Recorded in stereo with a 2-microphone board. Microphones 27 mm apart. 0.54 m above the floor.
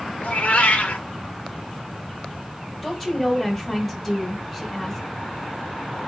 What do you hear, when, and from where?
0.2 s a cat meowing: 75° left (ahead or behind), 0.6 m
2.8 s a woman speaking: 5° left (ahead or behind), 2.5 m